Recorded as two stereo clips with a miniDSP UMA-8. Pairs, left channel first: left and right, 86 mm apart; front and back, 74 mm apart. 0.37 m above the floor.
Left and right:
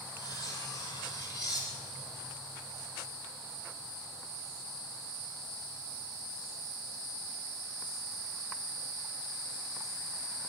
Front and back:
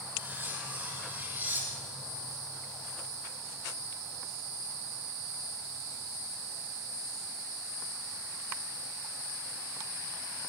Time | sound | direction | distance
0.2 | cutlery clinking | 120° left | 8 m